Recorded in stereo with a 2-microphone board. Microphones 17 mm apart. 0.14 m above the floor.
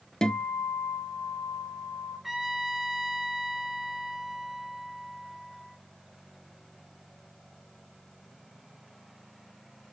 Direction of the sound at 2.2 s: 20° right (ahead or behind).